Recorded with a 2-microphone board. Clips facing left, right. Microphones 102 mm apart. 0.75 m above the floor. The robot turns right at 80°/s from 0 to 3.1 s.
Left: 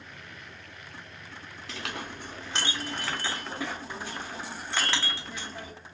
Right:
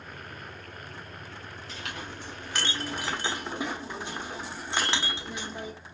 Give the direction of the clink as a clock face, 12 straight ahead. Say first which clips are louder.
Left 3 dB; 9 o'clock.